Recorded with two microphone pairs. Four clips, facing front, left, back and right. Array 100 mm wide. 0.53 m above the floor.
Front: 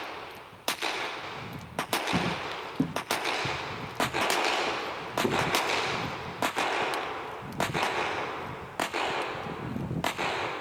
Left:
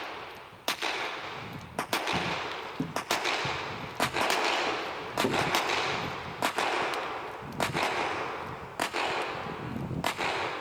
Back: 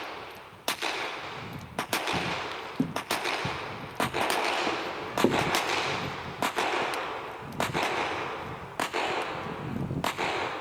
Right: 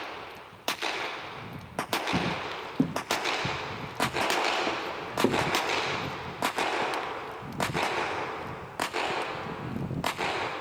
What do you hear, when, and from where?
2.1 s footsteps: 50° right, 0.9 m; by 5.5 s 145° right, 3 m